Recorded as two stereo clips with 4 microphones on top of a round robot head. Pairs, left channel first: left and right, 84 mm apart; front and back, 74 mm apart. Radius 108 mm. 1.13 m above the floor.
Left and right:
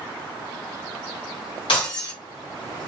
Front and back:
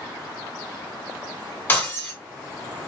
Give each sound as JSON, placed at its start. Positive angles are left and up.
{"t": 1.7, "sound": "breaking glass", "azimuth_deg": 60, "distance_m": 2.5}